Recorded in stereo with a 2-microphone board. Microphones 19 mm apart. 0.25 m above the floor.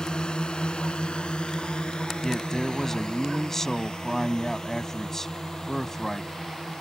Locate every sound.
0.0 s a drone: 50° left (ahead or behind); by 6.8 s 35° left (ahead or behind)
2.2 s a man speaking: 25° left (ahead or behind)